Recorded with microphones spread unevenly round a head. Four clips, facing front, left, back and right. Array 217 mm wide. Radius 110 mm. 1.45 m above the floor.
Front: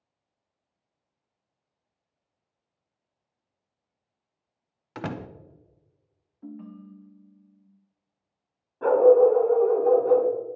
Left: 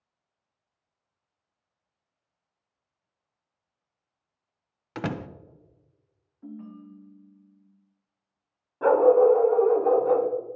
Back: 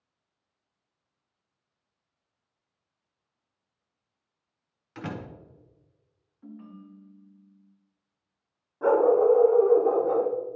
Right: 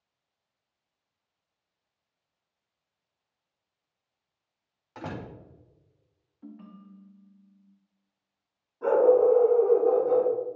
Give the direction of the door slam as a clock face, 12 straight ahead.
9 o'clock.